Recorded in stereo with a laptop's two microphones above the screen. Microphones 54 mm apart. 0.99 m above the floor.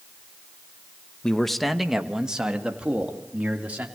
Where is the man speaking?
10° left (ahead or behind), 1.0 m; by 3.9 s 25° right (ahead or behind), 2.5 m.